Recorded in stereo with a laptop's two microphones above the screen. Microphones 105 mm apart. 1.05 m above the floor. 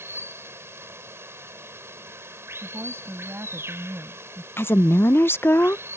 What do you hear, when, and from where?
0.0 s running water: 25° right (ahead or behind)
2.6 s a woman speaking: 20° right (ahead or behind)
4.6 s a woman speaking: 20° left (ahead or behind)